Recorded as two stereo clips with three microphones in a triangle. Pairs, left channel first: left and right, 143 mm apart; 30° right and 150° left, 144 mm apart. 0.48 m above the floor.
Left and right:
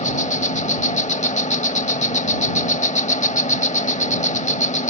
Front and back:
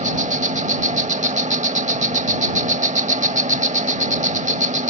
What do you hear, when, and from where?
0.0 s an insect: 120° left